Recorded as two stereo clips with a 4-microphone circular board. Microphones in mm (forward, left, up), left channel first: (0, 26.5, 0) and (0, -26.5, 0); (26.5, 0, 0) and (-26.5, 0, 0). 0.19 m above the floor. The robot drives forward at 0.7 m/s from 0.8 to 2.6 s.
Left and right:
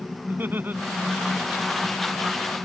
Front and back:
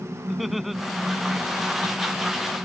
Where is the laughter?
95° right.